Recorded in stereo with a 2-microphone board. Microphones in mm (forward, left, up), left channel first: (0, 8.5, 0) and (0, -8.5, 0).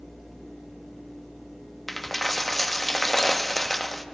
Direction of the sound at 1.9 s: 10° left (ahead or behind).